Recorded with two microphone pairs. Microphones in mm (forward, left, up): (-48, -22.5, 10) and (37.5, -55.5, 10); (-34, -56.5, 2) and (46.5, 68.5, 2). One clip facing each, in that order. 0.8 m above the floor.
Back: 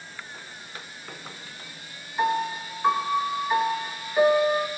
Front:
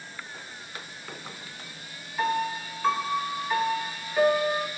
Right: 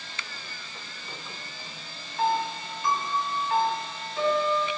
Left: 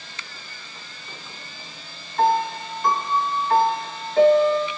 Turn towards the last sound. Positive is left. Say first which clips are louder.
# back 2 dB, left 6 dB
turn(degrees=85)